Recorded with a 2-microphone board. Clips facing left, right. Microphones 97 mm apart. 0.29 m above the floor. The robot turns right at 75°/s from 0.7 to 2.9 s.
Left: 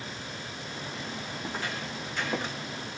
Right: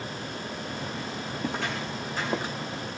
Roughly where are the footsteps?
Right.